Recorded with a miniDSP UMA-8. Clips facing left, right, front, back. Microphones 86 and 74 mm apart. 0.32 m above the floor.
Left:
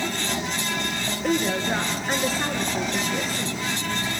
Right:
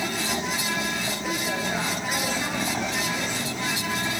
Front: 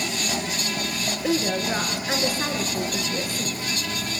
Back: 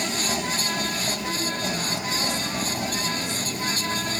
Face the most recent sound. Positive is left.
turn(degrees=35)